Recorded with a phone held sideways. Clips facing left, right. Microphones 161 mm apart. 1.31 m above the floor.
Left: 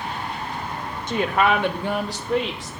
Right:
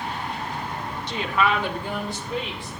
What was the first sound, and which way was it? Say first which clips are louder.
A woman speaking: left 4 dB; 45° left (ahead or behind).